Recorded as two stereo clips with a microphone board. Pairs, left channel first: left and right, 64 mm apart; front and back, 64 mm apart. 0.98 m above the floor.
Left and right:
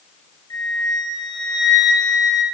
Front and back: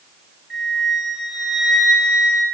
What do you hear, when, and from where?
0.5 s a flute: 95° left, 5 m